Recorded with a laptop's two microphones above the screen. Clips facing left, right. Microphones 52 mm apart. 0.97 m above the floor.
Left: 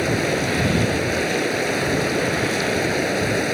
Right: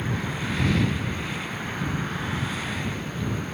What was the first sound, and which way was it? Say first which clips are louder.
Running water: left 9 dB; 85° left.